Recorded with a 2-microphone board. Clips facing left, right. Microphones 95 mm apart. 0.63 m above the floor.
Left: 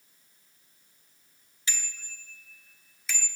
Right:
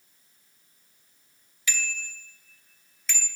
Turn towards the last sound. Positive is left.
turn(degrees=0)  # may be behind; listen again after turning